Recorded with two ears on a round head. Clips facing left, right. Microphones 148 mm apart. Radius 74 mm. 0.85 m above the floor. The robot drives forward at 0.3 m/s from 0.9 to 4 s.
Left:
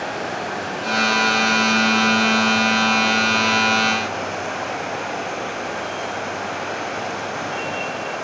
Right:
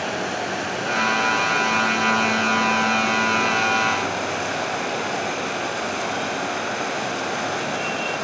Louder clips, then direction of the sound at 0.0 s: Even; 35° right (ahead or behind).